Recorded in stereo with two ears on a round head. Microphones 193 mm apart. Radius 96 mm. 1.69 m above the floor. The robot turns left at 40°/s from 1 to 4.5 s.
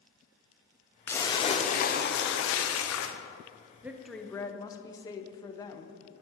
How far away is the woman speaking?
About 0.8 m.